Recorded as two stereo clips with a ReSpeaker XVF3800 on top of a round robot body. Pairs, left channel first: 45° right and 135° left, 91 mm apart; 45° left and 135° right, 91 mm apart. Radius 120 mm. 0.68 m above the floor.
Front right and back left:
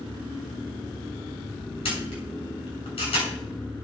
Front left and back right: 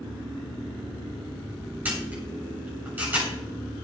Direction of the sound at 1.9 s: 65° right.